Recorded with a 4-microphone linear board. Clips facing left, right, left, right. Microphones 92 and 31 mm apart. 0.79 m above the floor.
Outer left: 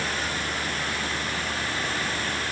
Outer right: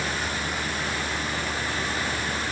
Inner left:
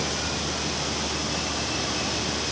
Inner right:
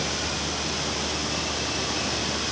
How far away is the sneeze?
I don't hear a sneeze.